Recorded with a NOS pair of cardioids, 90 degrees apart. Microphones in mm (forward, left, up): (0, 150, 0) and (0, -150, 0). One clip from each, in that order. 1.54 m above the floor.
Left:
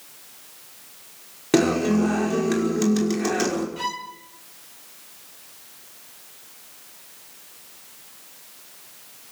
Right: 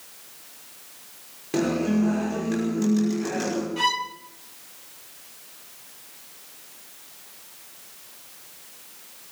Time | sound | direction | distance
1.5 | a guitar | 70° left | 5.5 m
3.8 | a violin | 25° right | 1.7 m